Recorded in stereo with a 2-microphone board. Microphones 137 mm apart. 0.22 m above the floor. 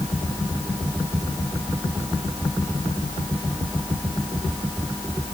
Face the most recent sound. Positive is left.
No sound to turn to.